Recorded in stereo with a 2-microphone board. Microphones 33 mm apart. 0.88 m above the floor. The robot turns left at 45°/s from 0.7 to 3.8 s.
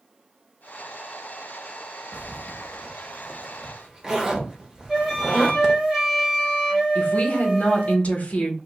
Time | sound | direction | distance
2.1 | a zipper | 50° left (ahead or behind) | 0.7 m
4.9 | a flute | 15° right (ahead or behind) | 1.1 m
7.0 | a woman speaking | 45° left (ahead or behind) | 0.8 m